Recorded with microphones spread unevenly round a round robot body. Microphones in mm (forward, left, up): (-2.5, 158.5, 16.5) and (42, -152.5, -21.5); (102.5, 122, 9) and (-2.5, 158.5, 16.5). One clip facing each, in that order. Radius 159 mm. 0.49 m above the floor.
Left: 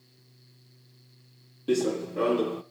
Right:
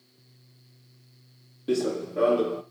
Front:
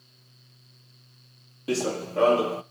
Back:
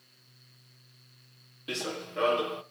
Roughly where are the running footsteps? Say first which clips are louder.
Even, front 9 dB; ahead.